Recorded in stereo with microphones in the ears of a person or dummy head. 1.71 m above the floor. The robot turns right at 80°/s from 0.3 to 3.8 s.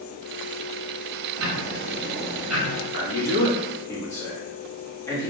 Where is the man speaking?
100° left, 0.9 m; by 5.3 s 170° left, 0.9 m.